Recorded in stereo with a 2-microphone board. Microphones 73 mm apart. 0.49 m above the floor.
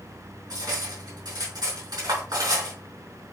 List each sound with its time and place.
0.5 s cutlery clinking: 75° right (ahead or behind), 4.5 m